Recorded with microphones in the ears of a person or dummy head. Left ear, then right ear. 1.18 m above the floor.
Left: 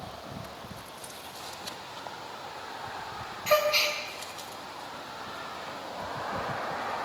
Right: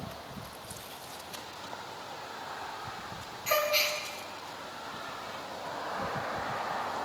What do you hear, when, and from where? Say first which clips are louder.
3.5 s a gasp: left 3 dB; 15° left (ahead or behind), 1.1 m